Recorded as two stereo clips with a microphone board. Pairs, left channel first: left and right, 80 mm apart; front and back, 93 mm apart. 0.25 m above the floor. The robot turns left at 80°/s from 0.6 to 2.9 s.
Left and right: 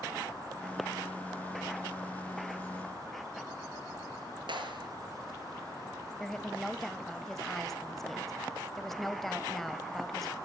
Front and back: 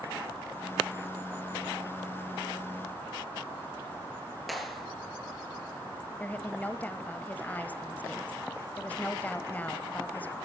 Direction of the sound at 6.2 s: 10° left.